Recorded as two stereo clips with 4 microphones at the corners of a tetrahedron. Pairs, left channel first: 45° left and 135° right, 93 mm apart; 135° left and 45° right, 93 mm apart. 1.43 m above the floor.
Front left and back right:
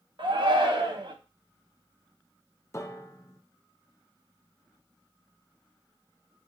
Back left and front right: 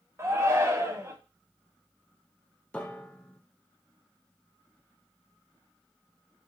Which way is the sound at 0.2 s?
105° right.